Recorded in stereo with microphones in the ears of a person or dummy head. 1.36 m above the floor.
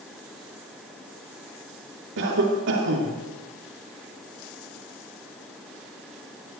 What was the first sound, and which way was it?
A cough, 65° right (ahead or behind).